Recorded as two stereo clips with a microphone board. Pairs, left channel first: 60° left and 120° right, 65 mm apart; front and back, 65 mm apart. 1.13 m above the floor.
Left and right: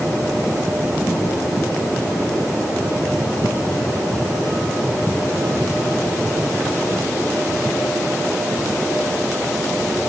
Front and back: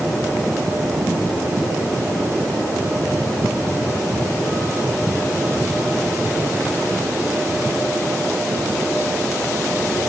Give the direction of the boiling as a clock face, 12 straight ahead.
No boiling in this recording.